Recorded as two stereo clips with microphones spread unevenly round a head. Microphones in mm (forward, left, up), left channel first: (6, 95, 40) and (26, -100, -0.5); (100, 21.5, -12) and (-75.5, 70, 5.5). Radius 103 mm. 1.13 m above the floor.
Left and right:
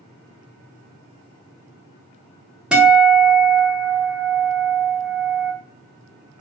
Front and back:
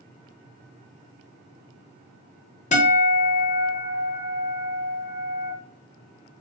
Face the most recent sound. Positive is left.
turn(degrees=15)